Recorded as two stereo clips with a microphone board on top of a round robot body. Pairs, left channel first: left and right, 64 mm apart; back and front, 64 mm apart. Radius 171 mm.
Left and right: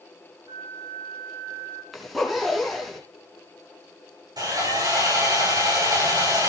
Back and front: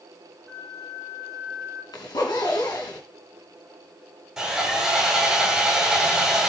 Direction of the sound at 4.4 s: 85° right.